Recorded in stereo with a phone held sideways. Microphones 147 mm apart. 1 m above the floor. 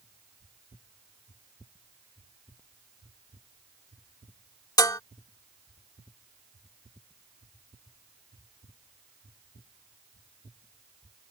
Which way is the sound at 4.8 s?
25° left (ahead or behind).